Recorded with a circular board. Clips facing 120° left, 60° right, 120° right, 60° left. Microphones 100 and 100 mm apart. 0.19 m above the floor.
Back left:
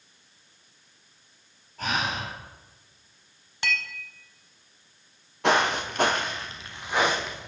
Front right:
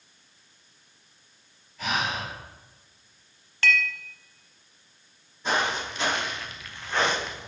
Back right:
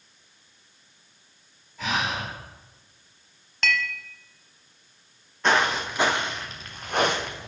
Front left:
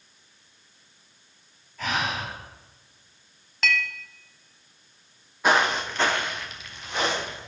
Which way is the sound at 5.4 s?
140° left.